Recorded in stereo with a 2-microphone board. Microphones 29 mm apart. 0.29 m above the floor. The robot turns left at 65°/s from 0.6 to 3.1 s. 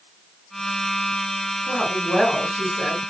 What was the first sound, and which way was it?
A woman speaking, 60° left.